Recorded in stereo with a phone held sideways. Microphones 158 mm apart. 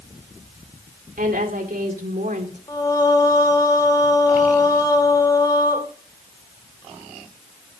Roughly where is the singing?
Left.